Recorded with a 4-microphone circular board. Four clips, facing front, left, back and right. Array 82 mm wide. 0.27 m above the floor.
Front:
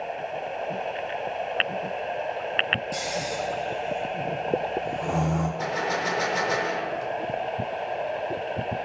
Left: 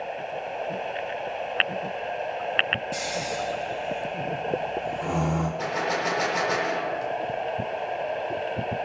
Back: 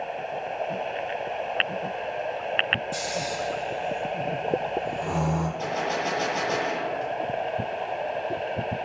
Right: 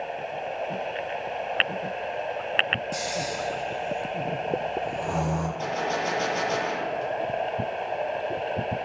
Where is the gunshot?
50° left, 5 m.